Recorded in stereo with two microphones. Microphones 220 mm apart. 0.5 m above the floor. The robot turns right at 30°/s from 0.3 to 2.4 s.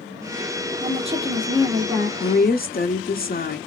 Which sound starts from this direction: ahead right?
A woman speaking, at 0.8 s.